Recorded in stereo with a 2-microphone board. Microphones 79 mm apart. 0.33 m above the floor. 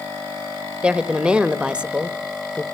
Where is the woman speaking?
15° right (ahead or behind), 1.1 m.